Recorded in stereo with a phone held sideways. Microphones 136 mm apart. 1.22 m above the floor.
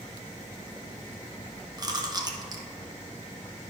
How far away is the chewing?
About 0.9 m.